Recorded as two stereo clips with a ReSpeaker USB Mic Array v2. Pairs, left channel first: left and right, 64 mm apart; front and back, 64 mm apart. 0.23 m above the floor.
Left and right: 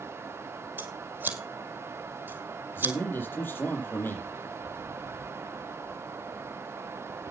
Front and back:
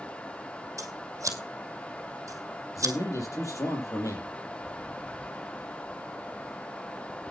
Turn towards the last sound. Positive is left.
turn(degrees=35)